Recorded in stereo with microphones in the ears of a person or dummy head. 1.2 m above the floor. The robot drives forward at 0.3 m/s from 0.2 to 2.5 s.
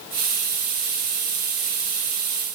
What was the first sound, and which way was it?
Only background noise.